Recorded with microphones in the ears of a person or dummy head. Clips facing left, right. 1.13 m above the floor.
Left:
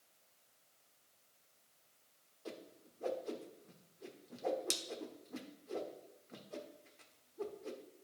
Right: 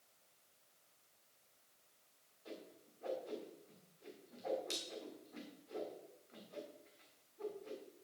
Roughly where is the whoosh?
Left.